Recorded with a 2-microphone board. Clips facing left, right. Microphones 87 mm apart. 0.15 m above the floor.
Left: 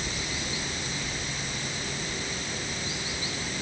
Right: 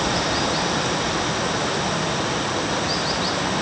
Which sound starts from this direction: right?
Running water, at 0.0 s.